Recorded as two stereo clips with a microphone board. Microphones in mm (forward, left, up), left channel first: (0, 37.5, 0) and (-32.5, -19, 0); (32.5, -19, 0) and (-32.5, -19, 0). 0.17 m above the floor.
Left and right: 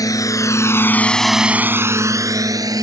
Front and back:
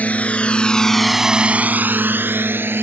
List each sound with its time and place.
0.0 s a drone: 65° left; by 2.9 s 125° right